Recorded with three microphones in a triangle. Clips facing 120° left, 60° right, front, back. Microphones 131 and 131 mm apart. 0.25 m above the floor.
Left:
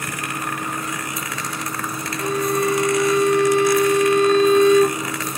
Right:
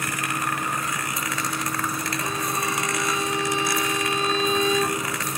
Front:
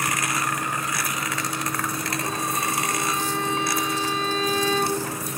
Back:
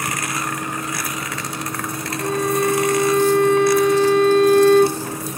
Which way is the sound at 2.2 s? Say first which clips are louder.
Left 11 dB, back 12 dB; 150° left.